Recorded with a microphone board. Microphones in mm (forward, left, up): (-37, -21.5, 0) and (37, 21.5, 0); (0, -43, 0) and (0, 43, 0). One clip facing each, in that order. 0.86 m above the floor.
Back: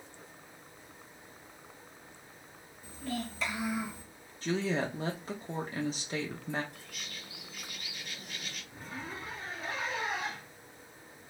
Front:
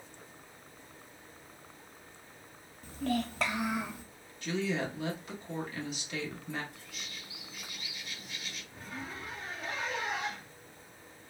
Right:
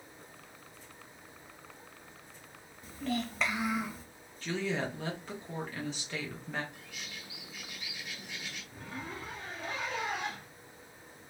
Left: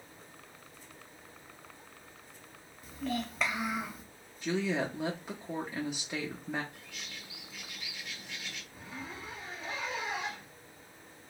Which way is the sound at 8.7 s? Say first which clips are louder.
Even, right 3 dB; 60° right.